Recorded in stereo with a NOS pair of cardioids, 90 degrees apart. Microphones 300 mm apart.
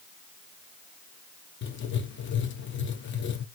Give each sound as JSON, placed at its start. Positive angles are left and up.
{"t": 1.6, "sound": "writing", "azimuth_deg": 40, "distance_m": 0.8}